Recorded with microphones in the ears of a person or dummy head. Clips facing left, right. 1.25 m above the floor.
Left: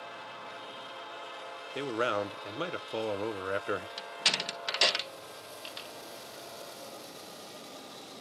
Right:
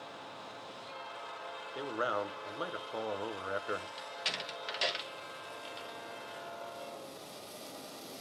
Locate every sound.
1.8 s a man speaking: 30° left (ahead or behind), 0.6 m
4.0 s a door slam: 65° left (ahead or behind), 0.8 m